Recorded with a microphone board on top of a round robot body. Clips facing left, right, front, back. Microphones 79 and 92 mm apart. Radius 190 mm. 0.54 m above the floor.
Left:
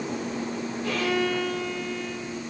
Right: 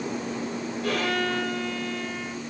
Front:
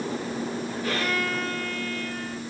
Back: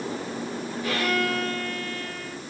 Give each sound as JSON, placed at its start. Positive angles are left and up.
{"t": 0.8, "sound": "a violin", "azimuth_deg": -60, "distance_m": 7.0}